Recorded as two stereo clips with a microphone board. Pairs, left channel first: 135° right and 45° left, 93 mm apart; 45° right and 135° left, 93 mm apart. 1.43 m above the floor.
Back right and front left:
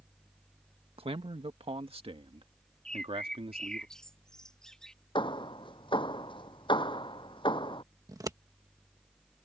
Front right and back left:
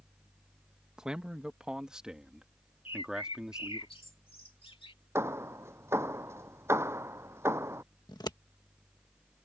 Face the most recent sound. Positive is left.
turn(degrees=-5)